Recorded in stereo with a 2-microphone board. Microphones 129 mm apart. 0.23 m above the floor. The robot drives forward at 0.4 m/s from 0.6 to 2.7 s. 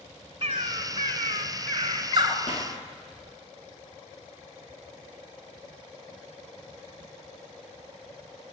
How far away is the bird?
About 1.0 m.